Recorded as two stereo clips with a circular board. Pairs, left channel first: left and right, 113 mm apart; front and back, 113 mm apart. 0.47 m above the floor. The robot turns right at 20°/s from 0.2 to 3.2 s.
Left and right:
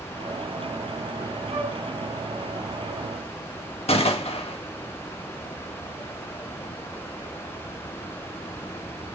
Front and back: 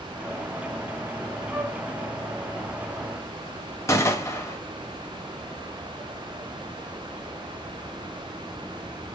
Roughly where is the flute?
Right.